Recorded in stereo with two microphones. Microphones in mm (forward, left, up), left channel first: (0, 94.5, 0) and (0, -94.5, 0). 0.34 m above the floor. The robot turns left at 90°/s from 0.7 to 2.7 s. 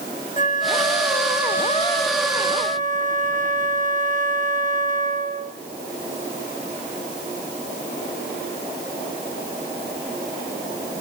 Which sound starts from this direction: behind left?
A flute, at 0.4 s.